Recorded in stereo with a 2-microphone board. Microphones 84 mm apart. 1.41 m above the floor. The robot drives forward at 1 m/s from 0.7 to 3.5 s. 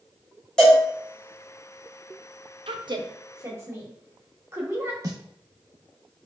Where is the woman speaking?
75° right (ahead or behind), 0.6 m; by 4.9 s 30° right (ahead or behind), 1.1 m.